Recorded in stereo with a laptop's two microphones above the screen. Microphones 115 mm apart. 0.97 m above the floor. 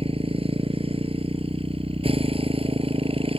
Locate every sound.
0.0 s a motorcycle: 55° right (ahead or behind)